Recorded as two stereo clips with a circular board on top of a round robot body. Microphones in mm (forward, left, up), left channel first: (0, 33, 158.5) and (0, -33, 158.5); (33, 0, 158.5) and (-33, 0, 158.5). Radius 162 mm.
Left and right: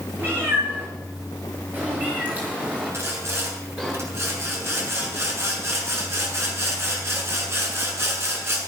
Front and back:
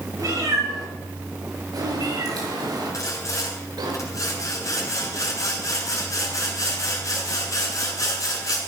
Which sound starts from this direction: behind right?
A cat meowing, at 0.2 s.